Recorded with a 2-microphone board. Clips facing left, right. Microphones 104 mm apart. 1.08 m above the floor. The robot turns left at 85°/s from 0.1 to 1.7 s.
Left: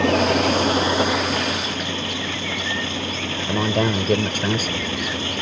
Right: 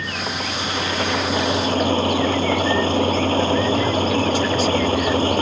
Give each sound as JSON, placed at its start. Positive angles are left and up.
{"t": 0.0, "sound": "an engine running", "azimuth_deg": 95}
{"t": 3.5, "sound": "a man speaking", "side_deg": 55}